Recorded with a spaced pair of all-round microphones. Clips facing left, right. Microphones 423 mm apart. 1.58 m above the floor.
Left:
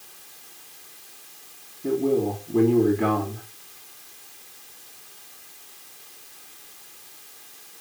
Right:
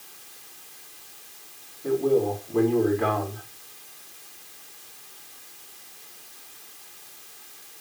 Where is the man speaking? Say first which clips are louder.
Even; 40° left (ahead or behind), 4 m.